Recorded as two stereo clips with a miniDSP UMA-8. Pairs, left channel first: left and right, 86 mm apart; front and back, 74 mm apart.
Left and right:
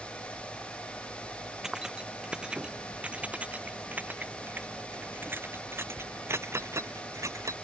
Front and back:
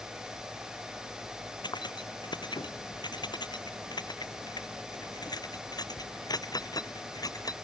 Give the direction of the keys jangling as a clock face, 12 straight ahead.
12 o'clock.